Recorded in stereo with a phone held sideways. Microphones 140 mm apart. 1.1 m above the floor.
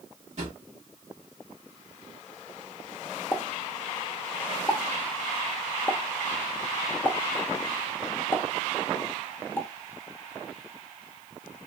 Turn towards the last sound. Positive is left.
turn(degrees=15)  # may be behind; listen again after turning